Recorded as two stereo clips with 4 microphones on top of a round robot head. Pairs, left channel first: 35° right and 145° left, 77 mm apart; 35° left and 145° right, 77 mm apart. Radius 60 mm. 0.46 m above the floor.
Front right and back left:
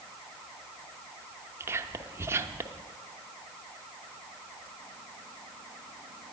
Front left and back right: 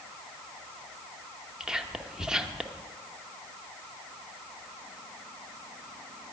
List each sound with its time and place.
1.6 s whispering: 140° left, 0.8 m